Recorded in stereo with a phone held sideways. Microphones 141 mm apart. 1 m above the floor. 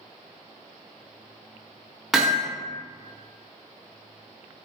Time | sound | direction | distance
2.1 | hammering | 5° right (ahead or behind) | 0.7 m